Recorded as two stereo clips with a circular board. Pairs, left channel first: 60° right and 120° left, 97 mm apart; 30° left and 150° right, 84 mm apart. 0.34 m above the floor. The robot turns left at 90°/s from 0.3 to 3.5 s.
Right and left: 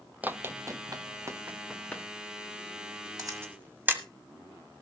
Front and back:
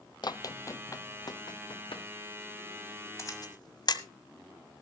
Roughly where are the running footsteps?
Ahead left.